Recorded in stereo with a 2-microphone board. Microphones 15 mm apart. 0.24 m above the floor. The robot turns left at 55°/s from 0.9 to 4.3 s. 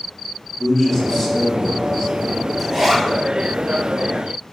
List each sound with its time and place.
0.6 s a man speaking: 15° left (ahead or behind), 1.2 m; by 2.4 s 15° right (ahead or behind), 1.2 m
2.6 s a zipper: 10° right (ahead or behind), 1.4 m; by 3.0 s 35° right (ahead or behind), 1.4 m